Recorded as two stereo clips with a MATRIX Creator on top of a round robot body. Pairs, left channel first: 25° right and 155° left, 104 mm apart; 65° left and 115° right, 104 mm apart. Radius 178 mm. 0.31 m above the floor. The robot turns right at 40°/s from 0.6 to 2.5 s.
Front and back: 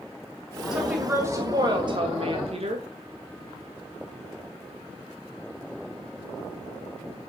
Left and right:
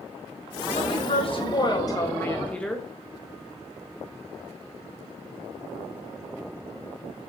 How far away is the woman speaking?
About 3 m.